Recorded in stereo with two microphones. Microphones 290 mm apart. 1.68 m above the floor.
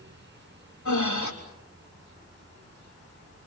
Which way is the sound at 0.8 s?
85° left.